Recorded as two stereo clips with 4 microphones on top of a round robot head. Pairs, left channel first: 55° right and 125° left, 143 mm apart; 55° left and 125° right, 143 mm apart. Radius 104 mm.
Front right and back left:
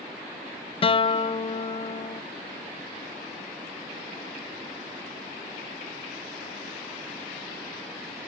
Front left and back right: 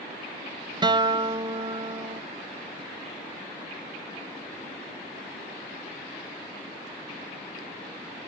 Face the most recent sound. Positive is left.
turn(degrees=-80)